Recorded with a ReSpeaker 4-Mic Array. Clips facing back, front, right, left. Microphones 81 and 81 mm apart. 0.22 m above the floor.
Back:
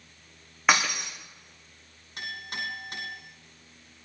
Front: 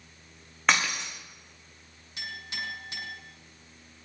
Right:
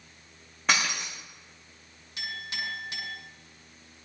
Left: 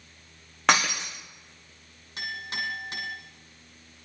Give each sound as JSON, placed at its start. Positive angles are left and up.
{"t": 0.7, "sound": "breaking glass", "azimuth_deg": 100, "distance_m": 5.0}
{"t": 2.2, "sound": "a clink", "azimuth_deg": 135, "distance_m": 7.5}